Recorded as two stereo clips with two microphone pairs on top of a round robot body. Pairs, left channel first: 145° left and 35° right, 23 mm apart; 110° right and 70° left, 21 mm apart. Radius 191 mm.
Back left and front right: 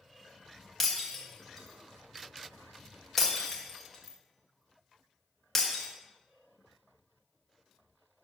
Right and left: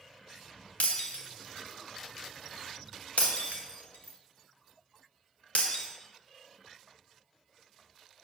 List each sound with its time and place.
0.8 s breaking glass: 120° right, 1.3 m